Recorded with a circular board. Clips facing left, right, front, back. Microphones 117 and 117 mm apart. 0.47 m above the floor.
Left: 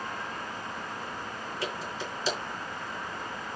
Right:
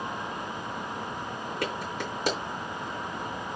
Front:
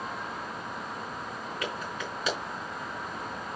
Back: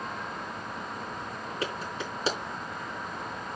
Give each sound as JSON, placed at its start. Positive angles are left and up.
{"t": 1.6, "sound": "a clap", "azimuth_deg": -120, "distance_m": 4.5}